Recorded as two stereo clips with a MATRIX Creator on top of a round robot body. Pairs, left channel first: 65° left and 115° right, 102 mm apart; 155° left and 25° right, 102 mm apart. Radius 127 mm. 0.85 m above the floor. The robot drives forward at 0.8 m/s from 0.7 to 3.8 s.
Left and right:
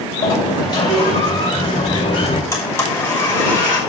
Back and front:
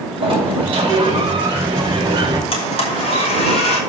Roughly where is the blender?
Behind left.